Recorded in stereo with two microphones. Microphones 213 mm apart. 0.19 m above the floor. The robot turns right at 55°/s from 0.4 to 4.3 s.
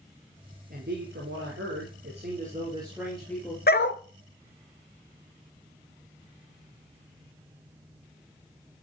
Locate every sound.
0.7 s a man speaking: 135° right, 3.5 m; by 3.6 s 20° left, 3.5 m
3.7 s a dog barking: 45° left (ahead or behind), 0.9 m; by 4.0 s 60° left (ahead or behind), 0.9 m